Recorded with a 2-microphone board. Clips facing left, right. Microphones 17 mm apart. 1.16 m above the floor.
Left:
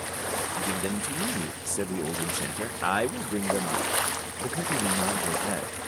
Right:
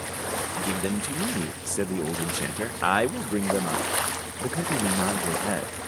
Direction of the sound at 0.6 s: 20° right (ahead or behind).